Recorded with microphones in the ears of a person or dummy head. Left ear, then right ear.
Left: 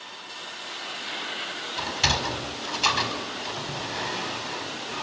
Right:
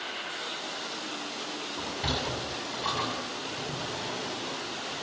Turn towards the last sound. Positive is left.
turn(degrees=75)  # may be behind; listen again after turning